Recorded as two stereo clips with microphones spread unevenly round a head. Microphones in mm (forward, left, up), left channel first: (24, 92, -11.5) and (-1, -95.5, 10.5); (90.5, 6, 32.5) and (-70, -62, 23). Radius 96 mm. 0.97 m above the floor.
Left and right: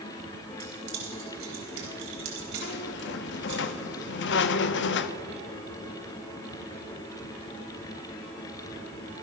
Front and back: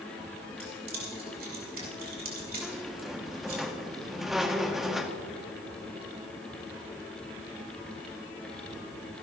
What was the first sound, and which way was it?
Keys jangling, 120° right.